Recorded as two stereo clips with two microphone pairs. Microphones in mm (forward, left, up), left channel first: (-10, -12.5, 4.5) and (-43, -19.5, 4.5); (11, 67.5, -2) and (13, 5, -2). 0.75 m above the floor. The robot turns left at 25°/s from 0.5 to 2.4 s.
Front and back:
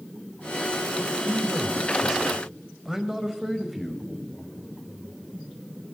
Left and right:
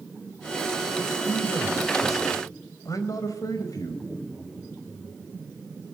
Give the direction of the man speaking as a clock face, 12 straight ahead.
7 o'clock.